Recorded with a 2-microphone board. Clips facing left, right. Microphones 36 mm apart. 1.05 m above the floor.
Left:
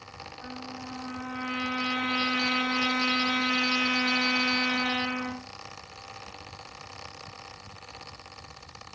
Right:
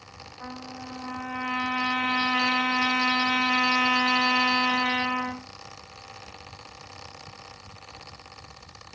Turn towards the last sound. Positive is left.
turn(degrees=-75)  # may be behind; listen again after turning